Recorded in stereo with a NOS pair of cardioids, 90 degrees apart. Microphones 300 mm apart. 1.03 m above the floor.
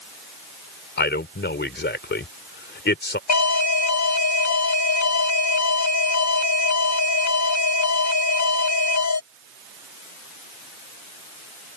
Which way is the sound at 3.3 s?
60° left.